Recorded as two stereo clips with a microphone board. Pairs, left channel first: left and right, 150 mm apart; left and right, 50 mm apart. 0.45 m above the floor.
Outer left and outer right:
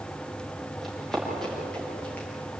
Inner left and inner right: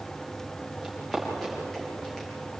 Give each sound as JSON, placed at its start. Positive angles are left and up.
{"t": 0.8, "sound": "running footsteps", "side_deg": 0, "distance_m": 9.5}